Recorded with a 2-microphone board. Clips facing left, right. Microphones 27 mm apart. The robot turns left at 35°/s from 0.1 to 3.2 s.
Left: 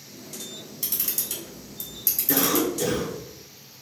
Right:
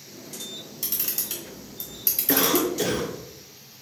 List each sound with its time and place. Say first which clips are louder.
0.8 s a camera shutter: left 1 dB; centre (ahead or behind), 2.5 m; by 2.7 s 50° right (ahead or behind), 2.5 m
2.3 s a cough: right 1 dB; 45° right (ahead or behind), 1.2 m; by 3.1 s 40° right (ahead or behind), 1.2 m